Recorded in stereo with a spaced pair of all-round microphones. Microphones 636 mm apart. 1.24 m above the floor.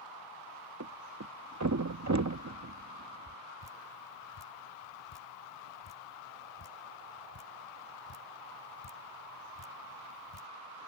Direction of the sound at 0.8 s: 30° right (ahead or behind).